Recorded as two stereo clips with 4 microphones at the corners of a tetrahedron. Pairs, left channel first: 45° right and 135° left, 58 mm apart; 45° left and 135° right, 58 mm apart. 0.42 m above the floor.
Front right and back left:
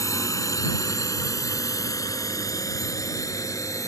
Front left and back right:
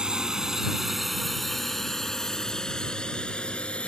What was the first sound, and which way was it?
A drone, 60° right.